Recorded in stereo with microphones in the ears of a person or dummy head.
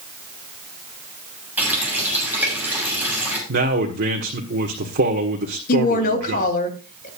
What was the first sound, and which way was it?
A running tap, 10° right (ahead or behind).